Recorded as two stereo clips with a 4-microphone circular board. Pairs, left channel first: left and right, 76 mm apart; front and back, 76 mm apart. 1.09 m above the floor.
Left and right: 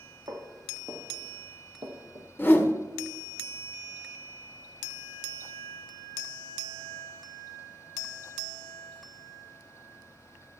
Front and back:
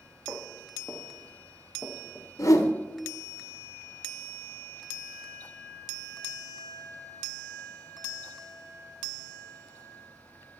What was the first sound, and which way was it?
Footsteps, 110° right.